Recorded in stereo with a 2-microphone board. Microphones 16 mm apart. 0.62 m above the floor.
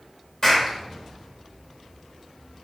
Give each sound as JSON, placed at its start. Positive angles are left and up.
{"t": 0.4, "sound": "a clap", "side_deg": 25, "distance_m": 2.0}